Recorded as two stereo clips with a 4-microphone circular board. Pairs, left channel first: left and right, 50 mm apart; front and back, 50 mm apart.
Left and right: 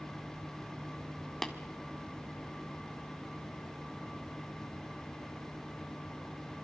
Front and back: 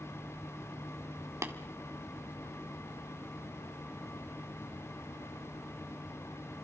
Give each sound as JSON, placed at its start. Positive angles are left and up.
{"t": 1.4, "sound": "tapping", "azimuth_deg": 170, "distance_m": 2.0}